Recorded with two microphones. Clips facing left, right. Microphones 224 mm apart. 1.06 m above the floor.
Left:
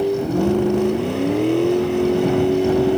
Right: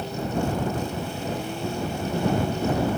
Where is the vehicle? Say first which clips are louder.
Left 10 dB; 70° left (ahead or behind).